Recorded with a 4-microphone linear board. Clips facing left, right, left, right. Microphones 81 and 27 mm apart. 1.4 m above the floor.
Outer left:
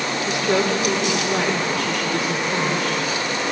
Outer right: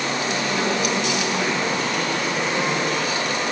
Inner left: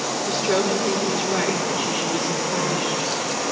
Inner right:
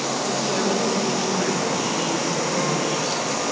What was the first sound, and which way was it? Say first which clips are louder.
A woman speaking: outer left 6 dB, inner left 3 dB; 90° left.